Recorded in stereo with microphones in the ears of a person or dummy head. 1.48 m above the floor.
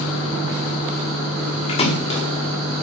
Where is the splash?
35° left (ahead or behind), 1.3 m.